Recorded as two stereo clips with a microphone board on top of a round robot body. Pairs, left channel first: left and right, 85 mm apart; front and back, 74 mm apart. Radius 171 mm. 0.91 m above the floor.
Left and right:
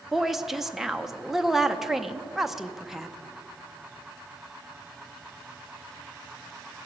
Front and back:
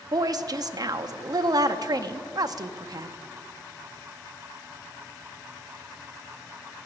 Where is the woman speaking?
175° right, 0.7 m.